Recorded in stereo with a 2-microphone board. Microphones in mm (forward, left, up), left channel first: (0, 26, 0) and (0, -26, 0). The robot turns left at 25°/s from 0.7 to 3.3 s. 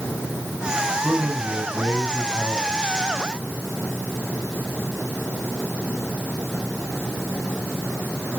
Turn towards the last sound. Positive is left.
turn(degrees=-175)